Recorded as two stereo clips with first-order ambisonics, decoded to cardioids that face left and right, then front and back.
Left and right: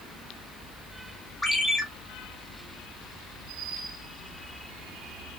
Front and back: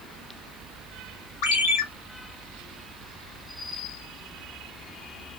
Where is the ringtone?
5° left, 1.5 m.